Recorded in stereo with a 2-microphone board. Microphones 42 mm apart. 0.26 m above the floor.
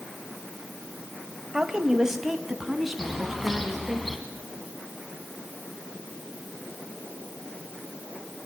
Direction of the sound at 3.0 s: Centre (ahead or behind).